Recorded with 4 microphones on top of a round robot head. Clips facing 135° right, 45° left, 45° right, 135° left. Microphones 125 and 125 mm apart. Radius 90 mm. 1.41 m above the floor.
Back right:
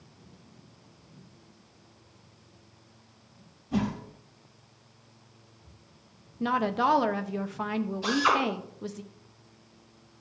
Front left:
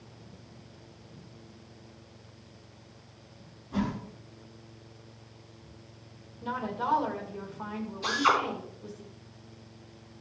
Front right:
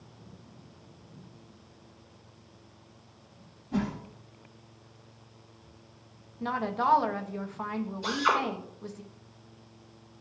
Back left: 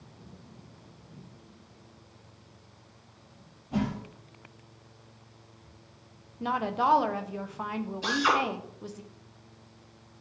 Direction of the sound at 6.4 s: 145° right.